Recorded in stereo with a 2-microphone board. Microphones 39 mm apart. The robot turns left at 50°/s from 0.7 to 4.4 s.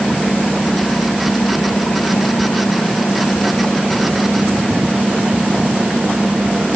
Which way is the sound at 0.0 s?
170° left.